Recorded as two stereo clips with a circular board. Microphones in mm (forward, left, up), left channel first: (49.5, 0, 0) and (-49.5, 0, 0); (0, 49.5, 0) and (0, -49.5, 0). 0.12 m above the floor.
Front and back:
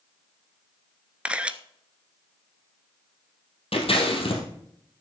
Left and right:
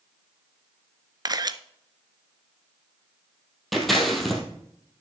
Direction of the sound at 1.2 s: 105° right.